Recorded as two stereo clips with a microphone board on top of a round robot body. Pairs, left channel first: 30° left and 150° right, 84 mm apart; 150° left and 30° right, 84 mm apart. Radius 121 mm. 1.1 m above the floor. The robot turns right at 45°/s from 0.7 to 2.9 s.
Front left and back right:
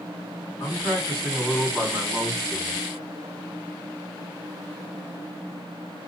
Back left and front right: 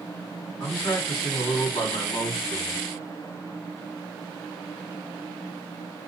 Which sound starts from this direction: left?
A man speaking, at 0.6 s.